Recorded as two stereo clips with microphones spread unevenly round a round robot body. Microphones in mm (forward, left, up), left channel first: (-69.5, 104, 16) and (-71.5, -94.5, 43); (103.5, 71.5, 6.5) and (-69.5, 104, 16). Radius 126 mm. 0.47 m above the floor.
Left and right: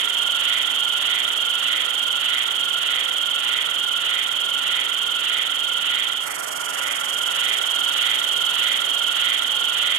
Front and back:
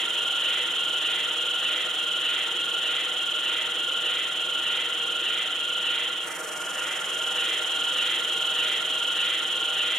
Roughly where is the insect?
Right.